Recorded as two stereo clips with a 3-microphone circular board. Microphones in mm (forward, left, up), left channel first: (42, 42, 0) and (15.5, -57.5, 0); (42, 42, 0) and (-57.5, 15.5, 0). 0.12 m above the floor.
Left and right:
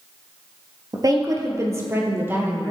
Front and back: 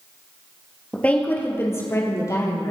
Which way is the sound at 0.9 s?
65° right.